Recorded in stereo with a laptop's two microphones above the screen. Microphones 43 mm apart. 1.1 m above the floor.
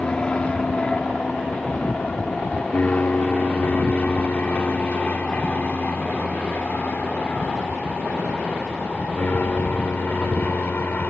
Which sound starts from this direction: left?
An aircraft, at 0.0 s.